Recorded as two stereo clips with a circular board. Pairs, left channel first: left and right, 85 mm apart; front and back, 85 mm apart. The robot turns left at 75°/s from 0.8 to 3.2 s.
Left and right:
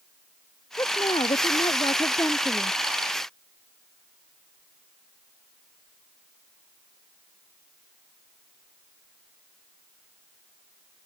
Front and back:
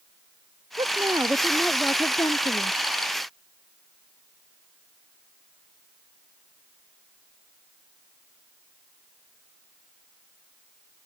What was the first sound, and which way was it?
A woman speaking, 145° left.